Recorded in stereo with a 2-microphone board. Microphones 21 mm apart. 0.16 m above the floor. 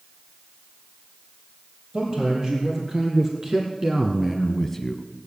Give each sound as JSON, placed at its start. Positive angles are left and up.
{"t": 1.9, "sound": "a man speaking", "side_deg": -40, "distance_m": 4.5}